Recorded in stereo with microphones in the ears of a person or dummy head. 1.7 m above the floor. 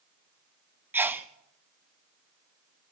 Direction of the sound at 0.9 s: 10° right (ahead or behind).